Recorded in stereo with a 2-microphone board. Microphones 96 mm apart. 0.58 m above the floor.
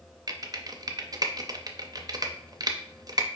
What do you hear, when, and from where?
0.3 s typing on a keyboard: 40° right (ahead or behind), 0.5 m